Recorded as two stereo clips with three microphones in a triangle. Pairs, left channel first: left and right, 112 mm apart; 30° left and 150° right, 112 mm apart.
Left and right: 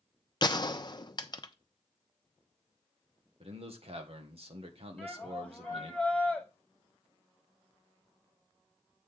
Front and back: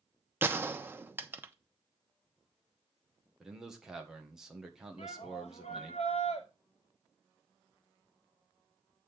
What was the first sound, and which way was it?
A gunshot, 140° left.